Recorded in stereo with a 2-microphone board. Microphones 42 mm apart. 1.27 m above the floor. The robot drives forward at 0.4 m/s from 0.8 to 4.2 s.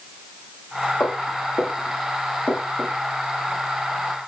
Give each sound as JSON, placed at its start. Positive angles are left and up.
{"t": 1.0, "sound": "footsteps", "side_deg": 65, "distance_m": 7.5}